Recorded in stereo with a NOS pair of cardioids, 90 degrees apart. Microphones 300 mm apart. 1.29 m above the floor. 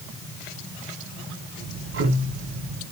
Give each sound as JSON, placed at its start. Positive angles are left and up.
{"t": 1.6, "sound": "ticking", "azimuth_deg": -45, "distance_m": 4.0}